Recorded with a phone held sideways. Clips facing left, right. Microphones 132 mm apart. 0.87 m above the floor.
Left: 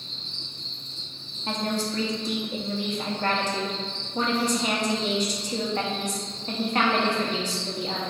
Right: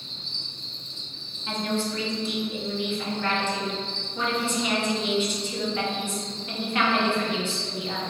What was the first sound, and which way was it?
An insect, 65° right (ahead or behind).